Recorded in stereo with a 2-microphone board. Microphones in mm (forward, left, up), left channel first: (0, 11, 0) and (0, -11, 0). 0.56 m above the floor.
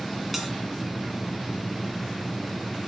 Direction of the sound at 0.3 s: 5° right (ahead or behind).